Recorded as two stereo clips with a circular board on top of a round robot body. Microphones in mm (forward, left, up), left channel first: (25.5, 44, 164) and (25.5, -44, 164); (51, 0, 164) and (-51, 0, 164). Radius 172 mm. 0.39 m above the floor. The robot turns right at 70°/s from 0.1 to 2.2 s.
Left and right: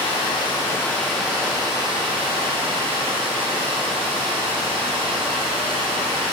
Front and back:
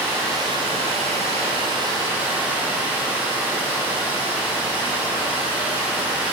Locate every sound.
0.0 s running water: 110° left, 0.8 m; by 6.3 s 105° right, 0.8 m